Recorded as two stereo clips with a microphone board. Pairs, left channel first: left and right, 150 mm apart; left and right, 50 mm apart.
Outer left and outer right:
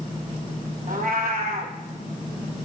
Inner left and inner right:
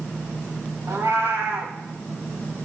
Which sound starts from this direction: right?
A cat meowing, at 0.9 s.